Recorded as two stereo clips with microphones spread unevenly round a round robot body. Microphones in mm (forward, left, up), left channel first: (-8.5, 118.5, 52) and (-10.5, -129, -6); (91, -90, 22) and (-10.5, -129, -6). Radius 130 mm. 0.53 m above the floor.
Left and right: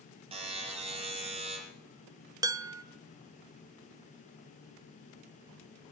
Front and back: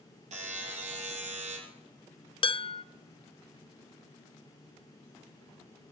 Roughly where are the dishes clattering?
Ahead right.